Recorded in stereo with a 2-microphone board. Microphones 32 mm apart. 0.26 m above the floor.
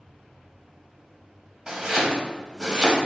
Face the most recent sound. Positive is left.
turn(degrees=-25)  # may be behind; listen again after turning